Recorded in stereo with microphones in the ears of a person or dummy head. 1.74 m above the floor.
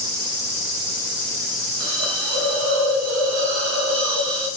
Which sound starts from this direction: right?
A hiss, at 1.8 s.